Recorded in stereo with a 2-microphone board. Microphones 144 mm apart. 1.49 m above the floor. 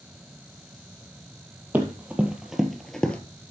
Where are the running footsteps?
10° right (ahead or behind), 2 m; by 3.2 s 10° left (ahead or behind), 1.4 m.